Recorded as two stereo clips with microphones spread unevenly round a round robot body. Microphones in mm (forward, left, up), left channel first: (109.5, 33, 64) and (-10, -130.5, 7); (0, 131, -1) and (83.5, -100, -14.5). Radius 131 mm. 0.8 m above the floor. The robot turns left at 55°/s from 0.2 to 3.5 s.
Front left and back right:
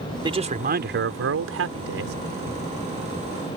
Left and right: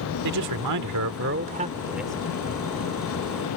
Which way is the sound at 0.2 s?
60° right.